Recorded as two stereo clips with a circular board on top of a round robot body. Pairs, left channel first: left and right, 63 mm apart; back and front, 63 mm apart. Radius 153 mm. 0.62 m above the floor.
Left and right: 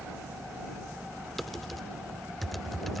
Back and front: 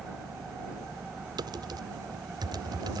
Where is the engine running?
15° right.